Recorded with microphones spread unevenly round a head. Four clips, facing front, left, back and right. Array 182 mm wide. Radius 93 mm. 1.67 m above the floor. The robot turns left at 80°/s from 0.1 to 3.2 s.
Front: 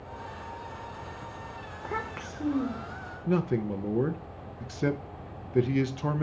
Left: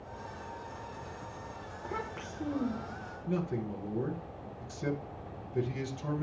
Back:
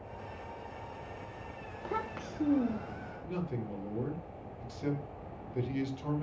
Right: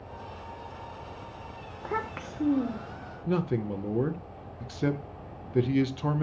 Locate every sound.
1.8 s a child speaking: 60° right, 0.7 m; by 3.1 s 165° right, 0.7 m
3.3 s a man speaking: 35° right, 0.7 m